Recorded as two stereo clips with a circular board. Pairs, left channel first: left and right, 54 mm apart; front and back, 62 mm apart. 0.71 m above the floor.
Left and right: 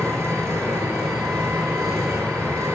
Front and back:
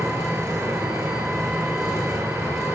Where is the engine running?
95° right, 9 m.